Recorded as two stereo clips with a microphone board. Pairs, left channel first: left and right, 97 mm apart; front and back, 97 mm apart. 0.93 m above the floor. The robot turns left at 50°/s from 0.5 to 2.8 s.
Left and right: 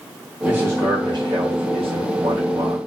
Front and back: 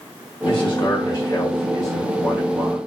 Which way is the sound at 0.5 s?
20° right.